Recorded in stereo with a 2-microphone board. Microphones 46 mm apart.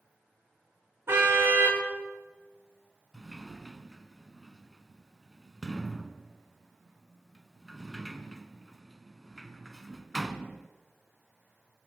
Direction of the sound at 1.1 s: 65° right (ahead or behind).